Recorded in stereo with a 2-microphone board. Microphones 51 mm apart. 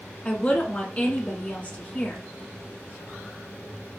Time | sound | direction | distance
0.2 | a woman speaking | 35° left (ahead or behind) | 1.3 m